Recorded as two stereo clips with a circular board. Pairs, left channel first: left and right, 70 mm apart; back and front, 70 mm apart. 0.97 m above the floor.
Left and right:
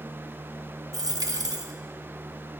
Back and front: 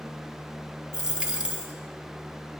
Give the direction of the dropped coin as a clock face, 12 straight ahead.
3 o'clock.